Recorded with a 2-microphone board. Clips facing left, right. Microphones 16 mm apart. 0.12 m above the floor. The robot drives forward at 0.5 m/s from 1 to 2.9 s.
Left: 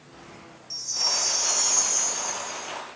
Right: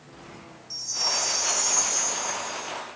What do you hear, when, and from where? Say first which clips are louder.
0.7 s a chime: left 1 dB; 10° left (ahead or behind), 2.5 m